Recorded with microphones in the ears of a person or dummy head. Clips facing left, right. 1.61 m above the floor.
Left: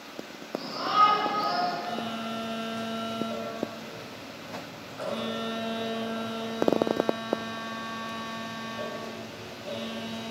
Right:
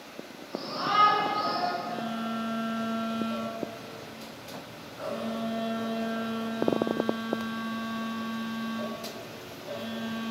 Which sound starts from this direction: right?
A shout, at 0.5 s.